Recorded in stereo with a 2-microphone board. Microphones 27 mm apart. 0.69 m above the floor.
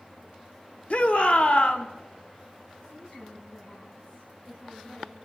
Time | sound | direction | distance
0.9 | a shout | 55° left (ahead or behind) | 1.4 m
2.8 | a woman speaking | 40° left (ahead or behind) | 6 m